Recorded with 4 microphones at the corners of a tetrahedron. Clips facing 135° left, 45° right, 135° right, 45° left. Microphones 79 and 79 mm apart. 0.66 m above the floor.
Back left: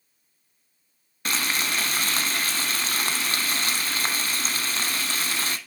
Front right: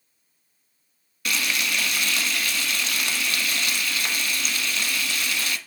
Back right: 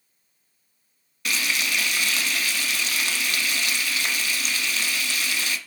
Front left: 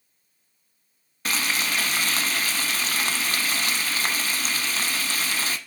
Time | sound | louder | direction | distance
1.2 | frying | even, even | 90° left | 0.9 m